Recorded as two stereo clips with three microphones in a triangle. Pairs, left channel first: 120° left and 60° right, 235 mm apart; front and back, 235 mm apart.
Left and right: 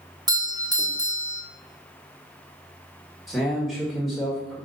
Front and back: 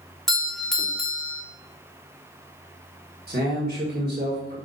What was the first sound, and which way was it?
A doorbell, 85° right.